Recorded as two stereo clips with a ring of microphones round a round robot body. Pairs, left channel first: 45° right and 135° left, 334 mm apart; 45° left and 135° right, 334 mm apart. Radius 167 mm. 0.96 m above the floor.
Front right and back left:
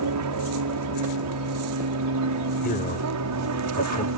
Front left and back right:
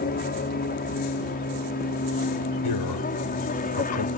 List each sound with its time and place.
0.0 s an aircraft: 105° left
2.6 s a man speaking: 20° left